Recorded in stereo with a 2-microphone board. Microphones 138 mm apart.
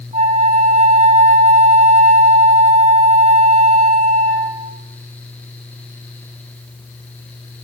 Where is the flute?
65° right (ahead or behind), 3 m.